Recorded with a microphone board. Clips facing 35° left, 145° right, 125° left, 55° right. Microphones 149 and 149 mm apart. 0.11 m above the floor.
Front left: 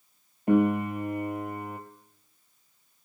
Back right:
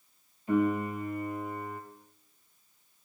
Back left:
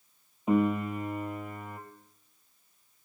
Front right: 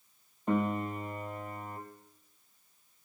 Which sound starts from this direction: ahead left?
A piano, at 0.5 s.